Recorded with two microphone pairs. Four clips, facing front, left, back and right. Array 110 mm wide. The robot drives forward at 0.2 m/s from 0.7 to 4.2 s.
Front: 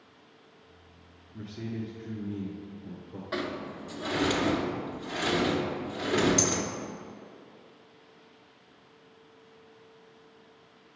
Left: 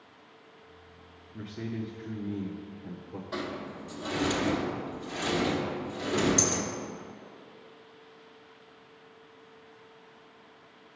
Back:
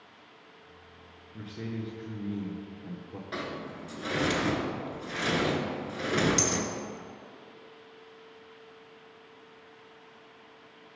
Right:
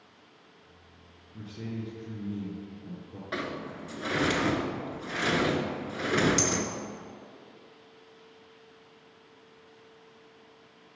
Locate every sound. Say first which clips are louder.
1.3 s a man speaking: left 2 dB, front 1 dB; 115° left, 1.5 m; by 3.2 s 135° left, 1.6 m
3.3 s a sliding door: right 1 dB, front 3 dB; 65° right, 0.8 m; by 6.7 s 85° right, 0.8 m